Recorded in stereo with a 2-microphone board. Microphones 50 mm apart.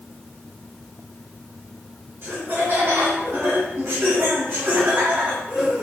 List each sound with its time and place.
2.2 s laughter: 50° right (ahead or behind), 3 m; by 5.8 s 15° right (ahead or behind), 2.0 m